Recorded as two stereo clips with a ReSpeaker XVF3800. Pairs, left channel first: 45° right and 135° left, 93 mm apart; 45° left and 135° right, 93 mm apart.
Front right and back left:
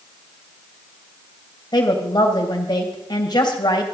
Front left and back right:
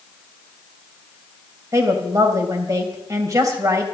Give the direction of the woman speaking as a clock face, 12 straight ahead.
3 o'clock.